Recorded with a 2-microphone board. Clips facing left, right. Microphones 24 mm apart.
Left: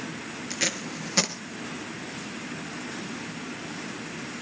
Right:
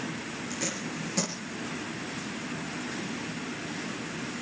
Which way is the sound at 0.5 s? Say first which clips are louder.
Left 6 dB; 60° left (ahead or behind).